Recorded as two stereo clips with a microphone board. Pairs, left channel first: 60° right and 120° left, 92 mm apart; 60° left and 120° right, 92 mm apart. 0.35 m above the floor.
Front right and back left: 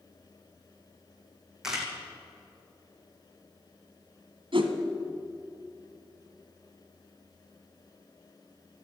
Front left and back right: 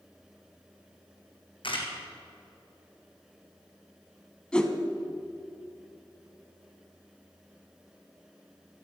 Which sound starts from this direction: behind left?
A whoosh, at 4.5 s.